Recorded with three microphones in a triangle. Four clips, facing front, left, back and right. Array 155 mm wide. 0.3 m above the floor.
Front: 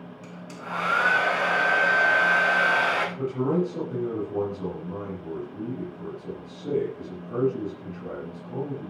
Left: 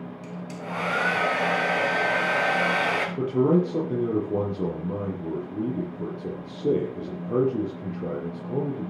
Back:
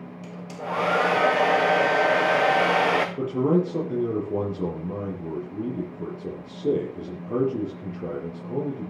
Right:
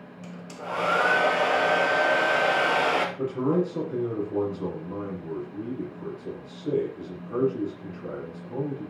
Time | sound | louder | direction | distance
0.2 | a hair dryer | right 2 dB, back 6 dB | 175° right | 3 m
3.2 | a man speaking | left 4 dB, back 3 dB | 125° left | 6.5 m